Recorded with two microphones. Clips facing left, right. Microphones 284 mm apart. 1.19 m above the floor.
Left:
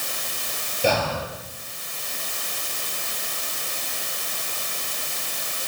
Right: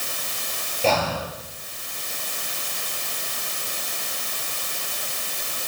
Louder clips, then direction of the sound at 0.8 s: Even; 15° left (ahead or behind).